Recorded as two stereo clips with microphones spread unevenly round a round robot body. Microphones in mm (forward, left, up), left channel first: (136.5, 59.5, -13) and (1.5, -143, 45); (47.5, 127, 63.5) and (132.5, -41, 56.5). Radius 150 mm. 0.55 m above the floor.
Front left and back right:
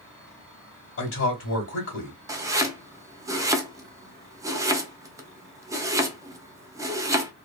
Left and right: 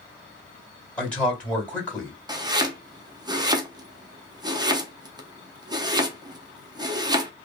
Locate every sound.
1.0 s a man speaking: 35° left, 2 m
2.3 s chopping: 30° right, 0.8 m